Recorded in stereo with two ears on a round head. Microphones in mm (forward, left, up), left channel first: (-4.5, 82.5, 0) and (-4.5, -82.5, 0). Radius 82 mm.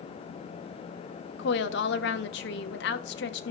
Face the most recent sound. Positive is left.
turn(degrees=65)  # may be behind; listen again after turning